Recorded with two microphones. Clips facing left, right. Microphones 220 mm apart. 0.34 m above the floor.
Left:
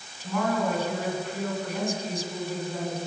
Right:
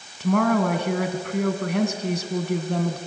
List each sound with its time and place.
0.2 s a woman speaking: 70° right (ahead or behind), 2.5 m